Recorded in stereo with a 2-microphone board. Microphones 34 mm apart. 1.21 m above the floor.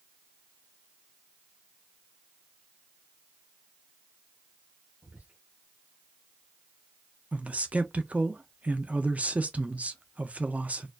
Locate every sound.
5.0 s whispering: 60° right (ahead or behind), 1.2 m
7.3 s a man speaking: 50° right (ahead or behind), 0.7 m